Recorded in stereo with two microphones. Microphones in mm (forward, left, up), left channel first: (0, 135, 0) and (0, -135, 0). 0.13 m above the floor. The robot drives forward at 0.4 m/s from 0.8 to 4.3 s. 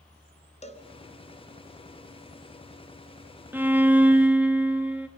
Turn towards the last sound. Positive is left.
turn(degrees=-5)  # may be behind; listen again after turning